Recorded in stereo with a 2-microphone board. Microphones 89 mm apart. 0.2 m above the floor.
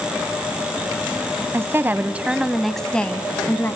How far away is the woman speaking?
About 1.1 m.